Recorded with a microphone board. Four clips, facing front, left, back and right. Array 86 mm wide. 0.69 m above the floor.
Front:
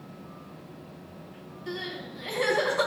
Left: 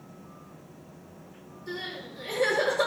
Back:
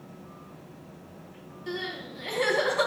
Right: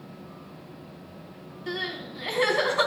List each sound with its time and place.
1.7 s crying: 90° right, 4.5 m